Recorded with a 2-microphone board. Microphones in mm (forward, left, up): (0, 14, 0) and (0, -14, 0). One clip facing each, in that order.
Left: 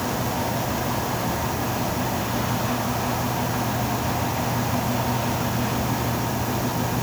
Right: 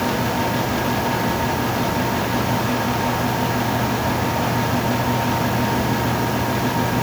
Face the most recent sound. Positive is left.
No sound to turn to.